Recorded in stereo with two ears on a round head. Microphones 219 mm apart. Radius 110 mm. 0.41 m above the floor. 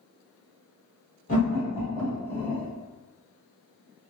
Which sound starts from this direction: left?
Laughter, at 1.3 s.